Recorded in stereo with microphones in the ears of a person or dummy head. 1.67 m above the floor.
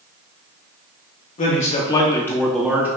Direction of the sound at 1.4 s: 40° left (ahead or behind).